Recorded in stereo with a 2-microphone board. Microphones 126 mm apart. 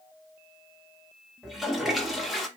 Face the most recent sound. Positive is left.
turn(degrees=0)  # may be behind; listen again after turning